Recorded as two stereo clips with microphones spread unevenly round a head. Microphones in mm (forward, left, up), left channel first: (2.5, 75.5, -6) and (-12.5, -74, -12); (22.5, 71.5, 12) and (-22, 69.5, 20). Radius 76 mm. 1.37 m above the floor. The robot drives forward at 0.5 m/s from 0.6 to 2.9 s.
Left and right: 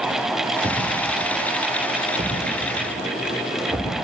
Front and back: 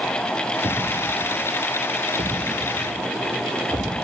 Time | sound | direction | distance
0.6 | a thud | 165° right | 9 m